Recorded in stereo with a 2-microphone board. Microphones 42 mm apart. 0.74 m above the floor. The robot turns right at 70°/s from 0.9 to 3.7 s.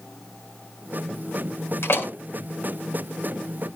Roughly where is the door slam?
Left.